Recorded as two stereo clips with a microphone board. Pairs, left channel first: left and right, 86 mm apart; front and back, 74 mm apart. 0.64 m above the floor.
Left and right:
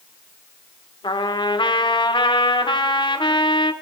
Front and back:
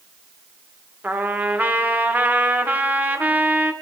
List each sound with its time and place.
1.0 s a trumpet: 115° left, 0.7 m